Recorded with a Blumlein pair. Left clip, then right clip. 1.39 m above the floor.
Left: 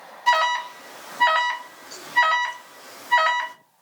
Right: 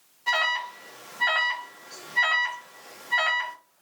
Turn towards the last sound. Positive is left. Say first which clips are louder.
# left 5 dB
turn(degrees=60)